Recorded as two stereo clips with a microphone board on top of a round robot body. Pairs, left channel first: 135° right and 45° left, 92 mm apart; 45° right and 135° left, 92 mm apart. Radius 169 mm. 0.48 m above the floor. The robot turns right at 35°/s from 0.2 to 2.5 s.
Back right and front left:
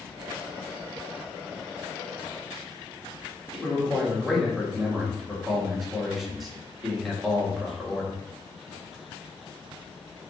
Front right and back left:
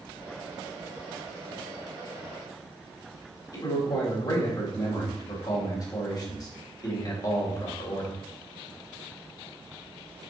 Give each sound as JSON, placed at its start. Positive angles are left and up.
{"t": 3.5, "sound": "a man speaking", "azimuth_deg": -45, "distance_m": 1.6}